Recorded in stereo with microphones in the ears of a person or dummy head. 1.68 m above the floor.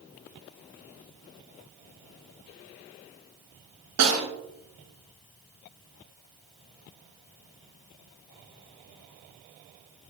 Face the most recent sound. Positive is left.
turn(degrees=-80)